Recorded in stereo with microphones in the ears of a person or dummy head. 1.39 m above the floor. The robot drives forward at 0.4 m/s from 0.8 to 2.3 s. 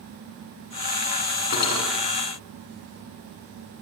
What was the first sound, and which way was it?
Cutlery clinking, 60° left (ahead or behind).